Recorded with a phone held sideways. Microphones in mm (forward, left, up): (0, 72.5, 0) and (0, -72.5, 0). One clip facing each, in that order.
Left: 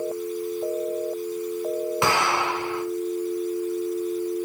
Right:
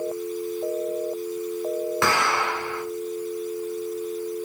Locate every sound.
2.0 s an explosion: 20° left (ahead or behind), 1.9 m